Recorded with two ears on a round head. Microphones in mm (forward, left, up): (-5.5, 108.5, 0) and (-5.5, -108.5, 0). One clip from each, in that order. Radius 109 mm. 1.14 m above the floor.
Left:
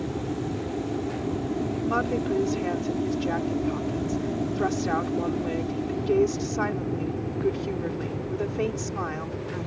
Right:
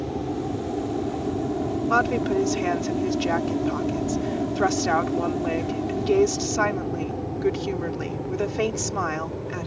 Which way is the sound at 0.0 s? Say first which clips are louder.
Right 2 dB; 60° right (ahead or behind).